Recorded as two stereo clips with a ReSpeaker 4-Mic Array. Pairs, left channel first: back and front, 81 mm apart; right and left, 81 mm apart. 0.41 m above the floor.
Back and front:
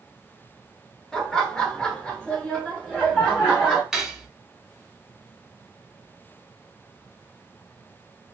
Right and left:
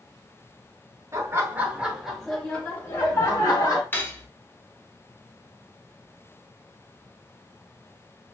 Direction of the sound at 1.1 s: 105° left.